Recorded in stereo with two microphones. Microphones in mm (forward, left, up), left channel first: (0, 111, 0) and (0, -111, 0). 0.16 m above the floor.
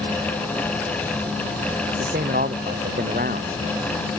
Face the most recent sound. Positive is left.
turn(degrees=-45)  # may be behind; listen again after turning